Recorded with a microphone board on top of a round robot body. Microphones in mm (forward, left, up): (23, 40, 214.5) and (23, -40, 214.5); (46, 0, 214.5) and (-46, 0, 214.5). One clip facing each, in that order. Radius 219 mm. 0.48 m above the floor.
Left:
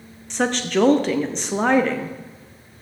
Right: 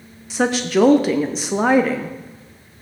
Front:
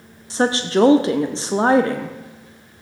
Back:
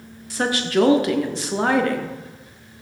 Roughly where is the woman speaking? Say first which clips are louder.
Right 3 dB, front 3 dB; ahead.